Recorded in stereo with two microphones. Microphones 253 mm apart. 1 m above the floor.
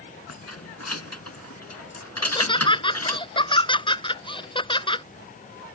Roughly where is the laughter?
Centre.